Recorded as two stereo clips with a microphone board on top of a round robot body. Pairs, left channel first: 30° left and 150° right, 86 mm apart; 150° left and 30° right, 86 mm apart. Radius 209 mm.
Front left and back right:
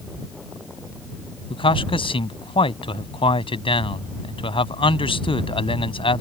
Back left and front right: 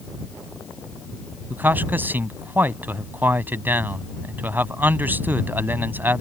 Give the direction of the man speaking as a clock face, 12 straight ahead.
11 o'clock.